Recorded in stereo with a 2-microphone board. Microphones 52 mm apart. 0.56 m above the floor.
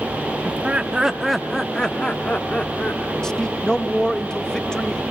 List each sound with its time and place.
0.5 s laughter: 30° right (ahead or behind), 0.9 m; by 3.1 s 40° left (ahead or behind), 1.4 m
3.2 s a man speaking: 10° left (ahead or behind), 1.1 m